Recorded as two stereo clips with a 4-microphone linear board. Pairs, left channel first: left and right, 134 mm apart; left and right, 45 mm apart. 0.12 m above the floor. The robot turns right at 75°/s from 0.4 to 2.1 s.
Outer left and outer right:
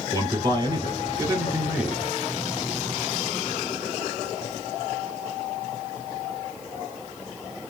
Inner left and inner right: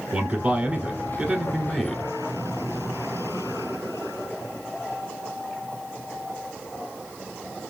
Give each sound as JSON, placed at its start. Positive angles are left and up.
{"t": 0.1, "sound": "a man speaking", "azimuth_deg": -120, "distance_m": 1.2}